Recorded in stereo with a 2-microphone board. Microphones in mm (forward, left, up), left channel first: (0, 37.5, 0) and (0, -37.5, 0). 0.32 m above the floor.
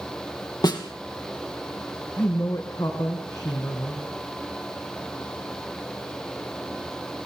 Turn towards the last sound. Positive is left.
turn(degrees=55)  # may be behind; listen again after turning